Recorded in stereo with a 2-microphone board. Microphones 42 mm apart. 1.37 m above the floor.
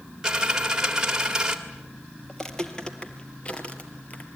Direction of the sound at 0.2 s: 15° right (ahead or behind).